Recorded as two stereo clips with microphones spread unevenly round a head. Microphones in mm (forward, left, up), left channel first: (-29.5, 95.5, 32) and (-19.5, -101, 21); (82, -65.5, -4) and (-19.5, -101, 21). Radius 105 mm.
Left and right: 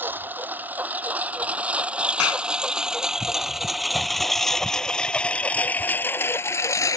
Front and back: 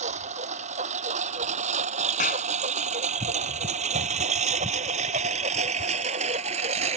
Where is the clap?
70° left.